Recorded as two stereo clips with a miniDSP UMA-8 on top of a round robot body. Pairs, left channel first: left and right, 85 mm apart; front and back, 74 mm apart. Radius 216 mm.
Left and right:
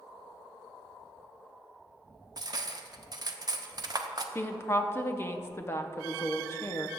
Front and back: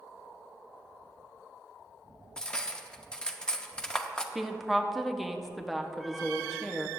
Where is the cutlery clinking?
75° right, 0.8 m.